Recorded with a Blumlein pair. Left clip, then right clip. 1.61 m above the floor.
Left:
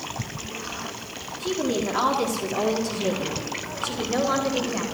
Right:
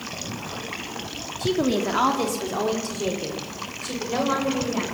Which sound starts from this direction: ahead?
A woman speaking, at 1.4 s.